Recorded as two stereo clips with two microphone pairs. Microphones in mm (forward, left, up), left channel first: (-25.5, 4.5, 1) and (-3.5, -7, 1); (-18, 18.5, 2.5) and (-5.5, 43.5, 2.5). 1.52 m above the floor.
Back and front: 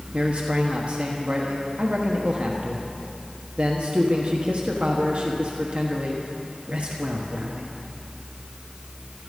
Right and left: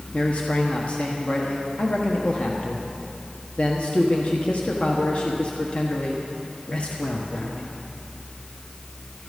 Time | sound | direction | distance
0.1 | a man speaking | 70° right | 1.3 m